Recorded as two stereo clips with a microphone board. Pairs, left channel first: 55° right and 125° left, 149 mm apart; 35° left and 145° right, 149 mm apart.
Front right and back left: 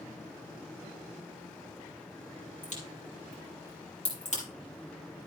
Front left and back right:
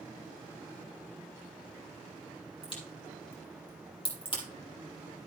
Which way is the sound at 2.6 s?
20° right.